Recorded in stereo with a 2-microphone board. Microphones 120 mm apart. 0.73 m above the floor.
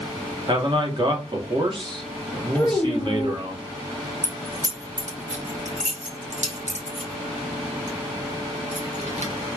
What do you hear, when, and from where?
0.5 s a man speaking: 40° right (ahead or behind), 1.3 m
2.5 s a child speaking: 15° left (ahead or behind), 0.7 m
4.2 s keys jangling: 75° right (ahead or behind), 1.2 m